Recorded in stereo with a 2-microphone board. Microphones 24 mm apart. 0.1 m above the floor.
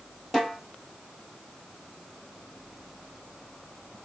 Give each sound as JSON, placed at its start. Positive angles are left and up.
{"t": 0.3, "sound": "a snare drum", "side_deg": 5, "distance_m": 1.5}